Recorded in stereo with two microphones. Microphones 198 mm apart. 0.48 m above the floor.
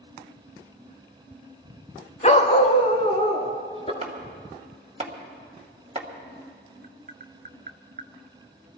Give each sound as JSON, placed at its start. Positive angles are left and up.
{"t": 2.2, "sound": "a dog barking", "side_deg": 35, "distance_m": 0.8}
{"t": 4.0, "sound": "chopping", "side_deg": -30, "distance_m": 1.7}
{"t": 6.8, "sound": "tapping", "side_deg": -45, "distance_m": 0.6}